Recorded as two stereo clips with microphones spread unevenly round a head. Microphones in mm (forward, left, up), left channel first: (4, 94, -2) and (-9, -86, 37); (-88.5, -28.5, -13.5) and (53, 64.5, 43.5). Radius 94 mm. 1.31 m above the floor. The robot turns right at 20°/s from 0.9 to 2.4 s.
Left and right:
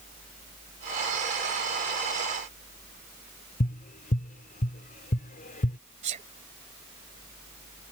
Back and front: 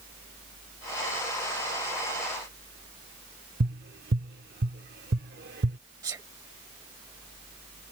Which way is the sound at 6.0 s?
40° right.